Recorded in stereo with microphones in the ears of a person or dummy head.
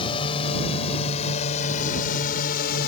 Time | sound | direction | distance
0.0 | a drone | 30° left (ahead or behind) | ?